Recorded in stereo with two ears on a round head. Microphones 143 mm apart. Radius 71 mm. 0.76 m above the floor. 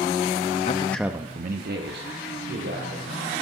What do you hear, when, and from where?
0.7 s a man speaking: 40° left (ahead or behind), 0.7 m; by 3.3 s 80° right, 3.5 m